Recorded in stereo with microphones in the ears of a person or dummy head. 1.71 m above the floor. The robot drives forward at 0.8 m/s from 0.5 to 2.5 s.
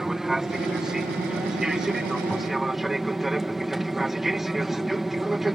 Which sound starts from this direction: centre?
An aircraft, at 0.0 s.